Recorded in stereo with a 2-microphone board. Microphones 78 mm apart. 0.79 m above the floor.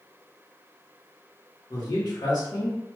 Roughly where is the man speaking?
Left.